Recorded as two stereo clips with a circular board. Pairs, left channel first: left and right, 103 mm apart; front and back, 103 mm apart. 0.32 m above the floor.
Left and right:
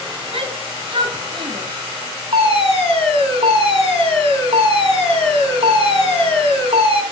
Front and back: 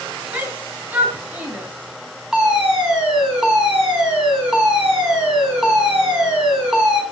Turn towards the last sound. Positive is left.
turn(degrees=-95)